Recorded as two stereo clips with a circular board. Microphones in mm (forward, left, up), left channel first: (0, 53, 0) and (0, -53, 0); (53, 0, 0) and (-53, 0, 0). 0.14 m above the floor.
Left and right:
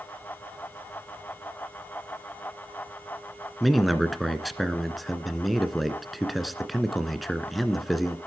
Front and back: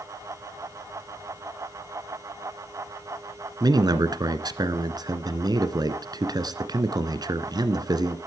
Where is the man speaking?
Straight behind, 1.5 m.